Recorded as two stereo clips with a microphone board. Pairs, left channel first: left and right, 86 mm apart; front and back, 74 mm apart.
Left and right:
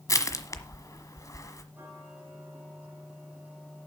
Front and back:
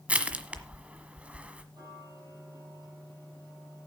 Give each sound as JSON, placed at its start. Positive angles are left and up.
{"t": 0.1, "sound": "crushing", "azimuth_deg": 115, "distance_m": 1.3}
{"t": 1.7, "sound": "ticking", "azimuth_deg": -160, "distance_m": 7.5}